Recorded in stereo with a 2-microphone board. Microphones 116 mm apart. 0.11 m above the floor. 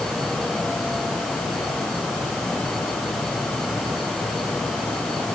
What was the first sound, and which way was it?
Only background noise.